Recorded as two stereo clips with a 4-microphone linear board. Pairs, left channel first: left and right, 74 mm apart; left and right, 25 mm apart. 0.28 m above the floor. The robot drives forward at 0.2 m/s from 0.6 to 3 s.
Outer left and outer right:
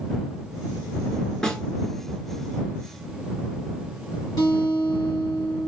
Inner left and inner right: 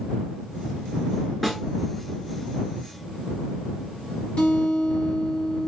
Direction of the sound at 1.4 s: 5° left (ahead or behind).